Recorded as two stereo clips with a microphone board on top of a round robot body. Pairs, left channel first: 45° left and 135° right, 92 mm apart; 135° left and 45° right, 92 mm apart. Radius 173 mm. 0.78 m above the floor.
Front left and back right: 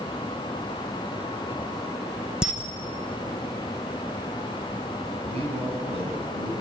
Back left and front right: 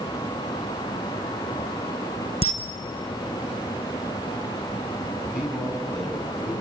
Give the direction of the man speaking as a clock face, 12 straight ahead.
4 o'clock.